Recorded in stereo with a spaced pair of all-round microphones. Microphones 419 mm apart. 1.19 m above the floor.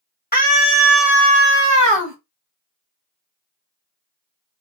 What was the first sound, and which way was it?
A scream, 20° left (ahead or behind).